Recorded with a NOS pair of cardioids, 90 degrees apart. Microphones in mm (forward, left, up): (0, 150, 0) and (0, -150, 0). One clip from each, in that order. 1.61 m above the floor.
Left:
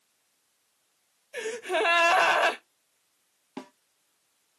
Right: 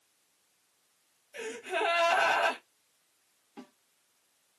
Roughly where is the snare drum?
Ahead left.